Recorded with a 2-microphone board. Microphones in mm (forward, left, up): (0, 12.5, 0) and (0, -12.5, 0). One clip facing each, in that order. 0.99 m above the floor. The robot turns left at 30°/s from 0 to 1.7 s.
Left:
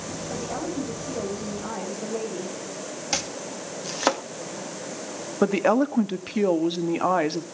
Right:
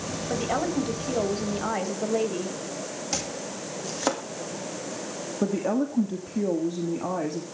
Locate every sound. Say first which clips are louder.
0.3 s a woman speaking: right 5 dB; 70° right, 5 m; by 2.5 s 115° right, 5 m
3.1 s chopping: left 4 dB; 30° left (ahead or behind), 1.8 m
5.4 s a woman speaking: left 5 dB; 80° left, 1.5 m